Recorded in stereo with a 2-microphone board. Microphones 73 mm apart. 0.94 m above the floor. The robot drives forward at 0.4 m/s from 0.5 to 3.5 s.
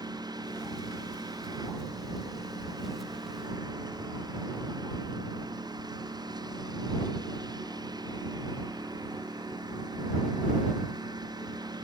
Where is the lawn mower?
75° right (ahead or behind).